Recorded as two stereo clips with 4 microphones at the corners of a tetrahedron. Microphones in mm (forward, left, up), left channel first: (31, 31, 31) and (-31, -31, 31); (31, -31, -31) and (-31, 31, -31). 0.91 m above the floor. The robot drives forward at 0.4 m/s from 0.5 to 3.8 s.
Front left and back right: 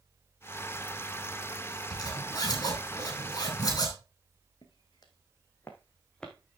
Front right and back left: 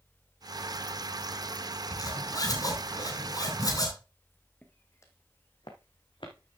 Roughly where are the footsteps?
Ahead left.